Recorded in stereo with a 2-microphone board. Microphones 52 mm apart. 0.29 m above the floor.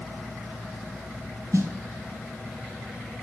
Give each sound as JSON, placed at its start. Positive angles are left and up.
{"t": 1.5, "sound": "a snare drum", "side_deg": -70, "distance_m": 2.0}